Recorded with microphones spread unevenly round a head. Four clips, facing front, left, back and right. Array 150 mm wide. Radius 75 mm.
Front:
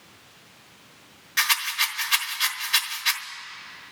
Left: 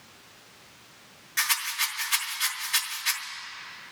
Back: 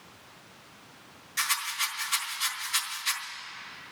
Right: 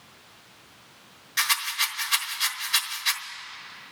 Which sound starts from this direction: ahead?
A rattle, at 1.4 s.